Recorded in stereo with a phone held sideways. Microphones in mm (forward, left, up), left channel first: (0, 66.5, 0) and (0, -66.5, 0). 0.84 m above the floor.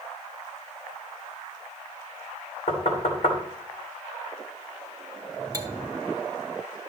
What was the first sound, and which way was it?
Knocking, 60° left (ahead or behind).